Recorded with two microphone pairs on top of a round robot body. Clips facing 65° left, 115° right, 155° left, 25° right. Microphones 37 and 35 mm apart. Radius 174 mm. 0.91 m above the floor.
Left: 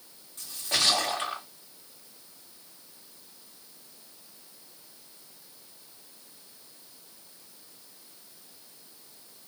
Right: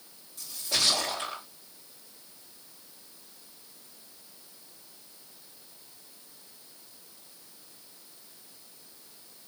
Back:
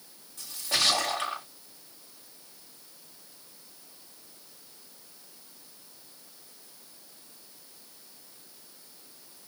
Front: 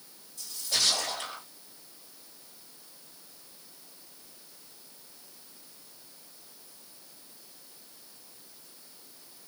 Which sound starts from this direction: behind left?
A splash, at 0.4 s.